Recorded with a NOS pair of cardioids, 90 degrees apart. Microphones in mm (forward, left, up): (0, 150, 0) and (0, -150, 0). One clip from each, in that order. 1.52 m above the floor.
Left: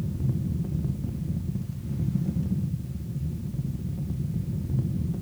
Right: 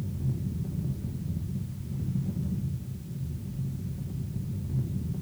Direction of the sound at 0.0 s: 35° left.